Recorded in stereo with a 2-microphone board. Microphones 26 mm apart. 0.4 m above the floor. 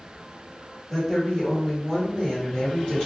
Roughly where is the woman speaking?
Centre.